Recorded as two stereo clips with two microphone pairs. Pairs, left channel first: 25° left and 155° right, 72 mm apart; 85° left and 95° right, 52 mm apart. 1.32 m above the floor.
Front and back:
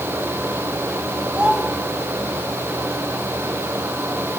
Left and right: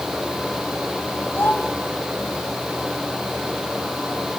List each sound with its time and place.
1.3 s a child speaking: 130° left, 5 m